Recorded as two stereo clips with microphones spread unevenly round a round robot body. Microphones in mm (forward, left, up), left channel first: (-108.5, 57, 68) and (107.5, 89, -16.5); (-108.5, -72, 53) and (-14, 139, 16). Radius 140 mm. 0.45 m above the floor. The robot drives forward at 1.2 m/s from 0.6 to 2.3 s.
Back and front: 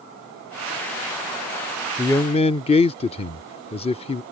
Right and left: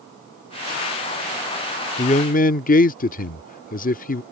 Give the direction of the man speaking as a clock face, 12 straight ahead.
2 o'clock.